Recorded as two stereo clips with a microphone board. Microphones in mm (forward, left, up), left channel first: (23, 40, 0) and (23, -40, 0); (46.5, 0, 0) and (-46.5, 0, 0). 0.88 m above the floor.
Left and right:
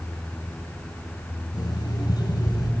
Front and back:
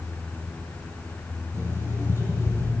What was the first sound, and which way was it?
An alarm clock, 120° left.